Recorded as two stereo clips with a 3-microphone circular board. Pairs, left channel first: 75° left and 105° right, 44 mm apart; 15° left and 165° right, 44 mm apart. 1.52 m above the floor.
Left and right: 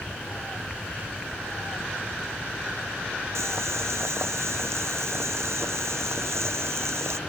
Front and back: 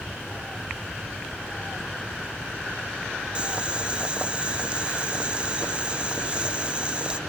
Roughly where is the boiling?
Right.